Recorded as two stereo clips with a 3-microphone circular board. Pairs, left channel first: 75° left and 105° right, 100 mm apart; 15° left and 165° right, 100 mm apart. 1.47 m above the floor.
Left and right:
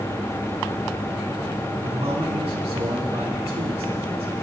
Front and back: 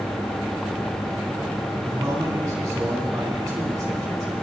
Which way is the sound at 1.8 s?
115° right.